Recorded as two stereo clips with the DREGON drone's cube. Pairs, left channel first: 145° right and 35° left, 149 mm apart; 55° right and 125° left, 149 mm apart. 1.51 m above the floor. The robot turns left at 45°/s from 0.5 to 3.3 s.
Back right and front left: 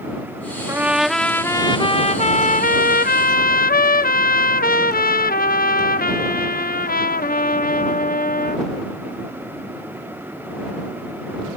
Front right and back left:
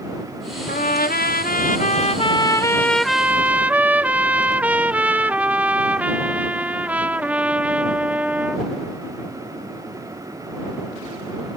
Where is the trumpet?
40° right; by 8.7 s 155° right.